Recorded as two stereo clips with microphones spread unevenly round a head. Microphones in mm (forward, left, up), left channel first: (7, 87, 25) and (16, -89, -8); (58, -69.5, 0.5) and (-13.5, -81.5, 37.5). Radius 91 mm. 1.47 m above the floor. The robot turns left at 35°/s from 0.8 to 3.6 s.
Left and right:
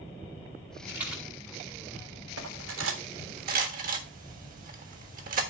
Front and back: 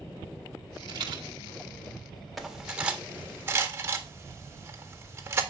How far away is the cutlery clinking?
About 1.5 m.